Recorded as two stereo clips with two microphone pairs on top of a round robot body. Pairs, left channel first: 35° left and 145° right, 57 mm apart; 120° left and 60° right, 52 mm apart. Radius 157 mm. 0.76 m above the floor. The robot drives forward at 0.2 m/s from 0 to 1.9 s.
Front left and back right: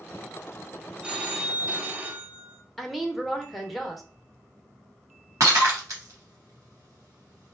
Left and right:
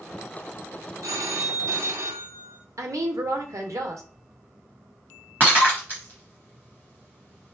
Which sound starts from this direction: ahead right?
A woman speaking, at 2.8 s.